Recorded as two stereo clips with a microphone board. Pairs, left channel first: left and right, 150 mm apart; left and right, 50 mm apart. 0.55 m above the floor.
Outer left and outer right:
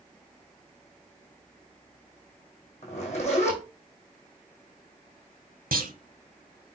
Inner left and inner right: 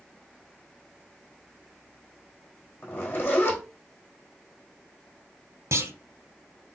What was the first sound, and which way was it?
A zipper, 50° left (ahead or behind).